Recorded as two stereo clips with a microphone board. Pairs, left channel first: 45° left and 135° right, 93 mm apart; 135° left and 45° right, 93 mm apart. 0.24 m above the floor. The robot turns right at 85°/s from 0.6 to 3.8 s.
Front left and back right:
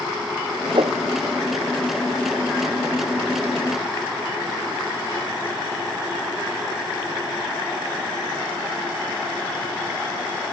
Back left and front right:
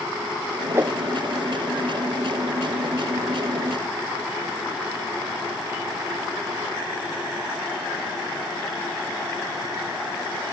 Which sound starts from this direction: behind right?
A whoosh, at 0.7 s.